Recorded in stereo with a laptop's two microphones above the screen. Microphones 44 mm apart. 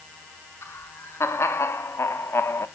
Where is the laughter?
80° left, 3 m; by 2.7 s 65° left (ahead or behind), 0.9 m.